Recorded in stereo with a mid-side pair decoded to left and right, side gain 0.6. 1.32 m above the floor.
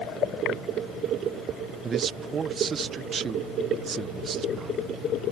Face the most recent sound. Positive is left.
turn(degrees=-35)